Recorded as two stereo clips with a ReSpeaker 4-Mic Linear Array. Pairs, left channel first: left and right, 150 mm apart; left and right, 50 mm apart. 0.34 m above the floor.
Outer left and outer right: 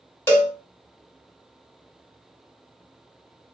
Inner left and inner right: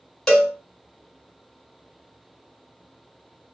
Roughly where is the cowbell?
Centre.